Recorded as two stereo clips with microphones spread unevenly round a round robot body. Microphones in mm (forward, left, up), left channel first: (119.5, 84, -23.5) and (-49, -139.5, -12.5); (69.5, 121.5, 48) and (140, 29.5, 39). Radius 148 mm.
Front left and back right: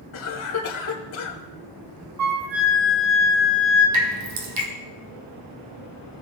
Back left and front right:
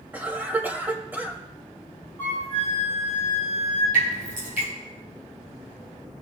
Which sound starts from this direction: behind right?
A flute, at 2.2 s.